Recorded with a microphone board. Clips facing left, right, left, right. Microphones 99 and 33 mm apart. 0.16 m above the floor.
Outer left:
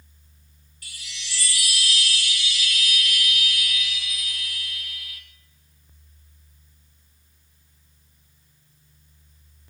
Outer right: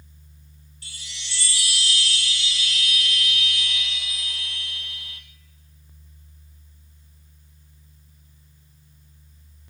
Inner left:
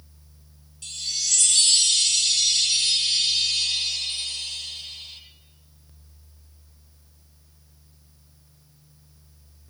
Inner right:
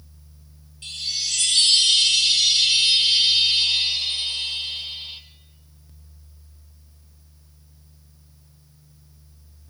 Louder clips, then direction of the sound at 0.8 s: Outer left 1 dB, inner right 2 dB; 30° right (ahead or behind).